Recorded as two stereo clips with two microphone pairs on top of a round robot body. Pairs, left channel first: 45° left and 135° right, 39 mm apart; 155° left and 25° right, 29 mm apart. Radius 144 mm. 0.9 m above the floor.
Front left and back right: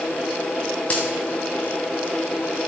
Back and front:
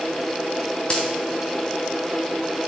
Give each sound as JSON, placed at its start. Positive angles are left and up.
{"t": 0.9, "sound": "a dropped coin", "azimuth_deg": 105, "distance_m": 2.5}